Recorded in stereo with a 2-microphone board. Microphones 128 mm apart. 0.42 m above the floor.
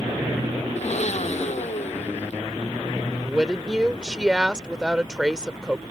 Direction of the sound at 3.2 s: 5° right (ahead or behind).